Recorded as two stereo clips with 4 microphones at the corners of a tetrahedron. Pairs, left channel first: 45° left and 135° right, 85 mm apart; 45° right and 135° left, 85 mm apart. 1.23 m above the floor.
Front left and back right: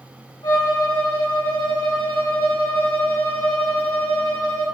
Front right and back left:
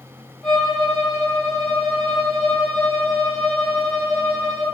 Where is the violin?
40° left, 2.5 m.